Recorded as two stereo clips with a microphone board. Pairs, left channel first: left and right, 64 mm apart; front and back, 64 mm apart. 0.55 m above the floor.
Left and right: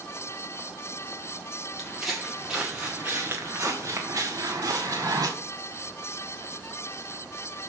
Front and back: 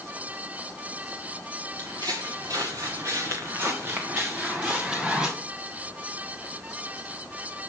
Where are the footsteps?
Straight behind, 2.5 m; by 5.3 s 105° right, 3 m.